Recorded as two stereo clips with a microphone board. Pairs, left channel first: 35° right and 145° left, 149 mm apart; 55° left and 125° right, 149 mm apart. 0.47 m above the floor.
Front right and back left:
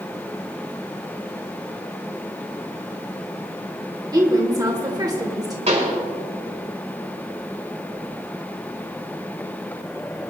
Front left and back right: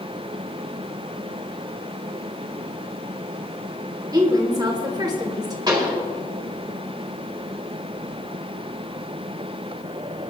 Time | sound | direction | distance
4.1 | a woman speaking | 170° right | 1.4 m
5.7 | a pop | 175° left | 3.5 m